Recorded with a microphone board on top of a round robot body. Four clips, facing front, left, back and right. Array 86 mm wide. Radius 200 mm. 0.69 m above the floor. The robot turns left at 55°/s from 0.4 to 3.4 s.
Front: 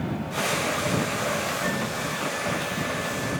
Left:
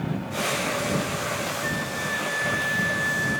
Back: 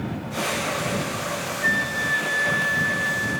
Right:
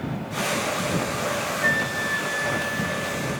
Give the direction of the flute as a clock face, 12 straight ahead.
5 o'clock.